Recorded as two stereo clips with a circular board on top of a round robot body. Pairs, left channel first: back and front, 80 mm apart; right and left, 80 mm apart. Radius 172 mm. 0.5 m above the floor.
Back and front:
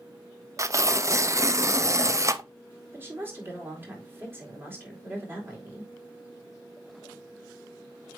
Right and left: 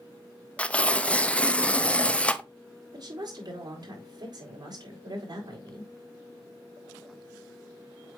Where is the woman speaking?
60° left, 3.5 m.